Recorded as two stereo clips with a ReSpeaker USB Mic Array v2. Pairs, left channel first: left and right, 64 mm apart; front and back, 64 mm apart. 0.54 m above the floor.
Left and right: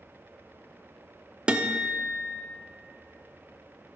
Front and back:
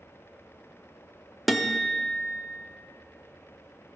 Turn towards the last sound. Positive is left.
turn(degrees=-90)